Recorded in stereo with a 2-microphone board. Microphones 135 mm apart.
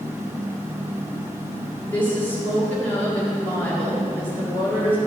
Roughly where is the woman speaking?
Centre.